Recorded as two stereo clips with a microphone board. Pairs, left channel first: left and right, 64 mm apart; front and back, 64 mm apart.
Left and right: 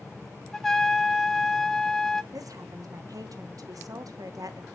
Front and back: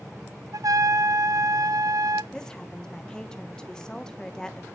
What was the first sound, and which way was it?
A trumpet, 175° left.